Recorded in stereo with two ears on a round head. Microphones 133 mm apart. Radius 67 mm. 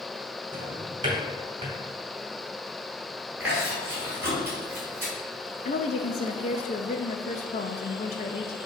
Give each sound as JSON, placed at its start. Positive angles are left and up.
{"t": 0.5, "sound": "a drawer", "side_deg": -30, "distance_m": 2.0}
{"t": 3.4, "sound": "chewing", "side_deg": -15, "distance_m": 3.0}
{"t": 5.7, "sound": "a woman speaking", "side_deg": 45, "distance_m": 0.5}